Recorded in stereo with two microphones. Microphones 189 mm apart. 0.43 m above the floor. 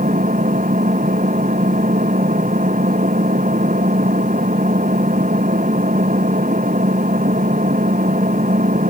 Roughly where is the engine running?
Right.